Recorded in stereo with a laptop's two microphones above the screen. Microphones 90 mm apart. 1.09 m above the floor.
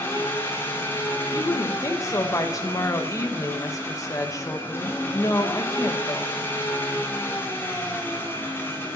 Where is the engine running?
25° left (ahead or behind), 3 m.